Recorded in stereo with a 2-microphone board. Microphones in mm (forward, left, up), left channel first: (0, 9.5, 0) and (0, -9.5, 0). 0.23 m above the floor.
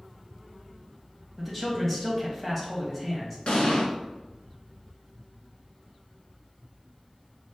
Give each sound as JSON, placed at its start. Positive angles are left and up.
{"t": 1.4, "sound": "a man speaking", "side_deg": 10, "distance_m": 1.5}
{"t": 3.5, "sound": "an explosion", "side_deg": 70, "distance_m": 1.1}